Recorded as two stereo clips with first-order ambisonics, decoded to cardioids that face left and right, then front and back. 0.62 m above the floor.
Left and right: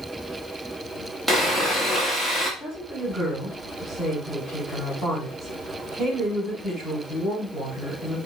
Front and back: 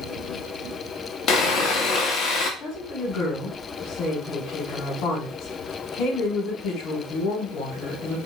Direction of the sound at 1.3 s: 5° left.